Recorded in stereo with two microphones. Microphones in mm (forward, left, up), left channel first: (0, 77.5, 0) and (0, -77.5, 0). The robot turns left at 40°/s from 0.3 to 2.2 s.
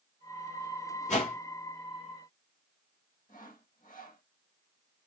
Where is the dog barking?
I don't hear a dog barking.